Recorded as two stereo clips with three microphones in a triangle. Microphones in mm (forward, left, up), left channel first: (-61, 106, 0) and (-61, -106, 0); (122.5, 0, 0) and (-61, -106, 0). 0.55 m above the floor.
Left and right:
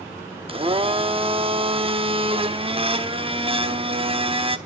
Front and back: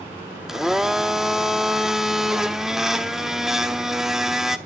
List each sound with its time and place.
0.5 s a blender: 65° right, 0.7 m